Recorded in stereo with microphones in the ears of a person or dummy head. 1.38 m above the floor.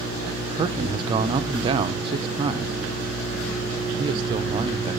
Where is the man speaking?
25° right (ahead or behind), 0.5 m.